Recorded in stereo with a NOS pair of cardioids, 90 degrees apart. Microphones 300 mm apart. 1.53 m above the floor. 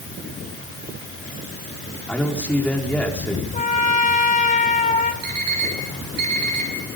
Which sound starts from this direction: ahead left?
A trumpet, at 3.5 s.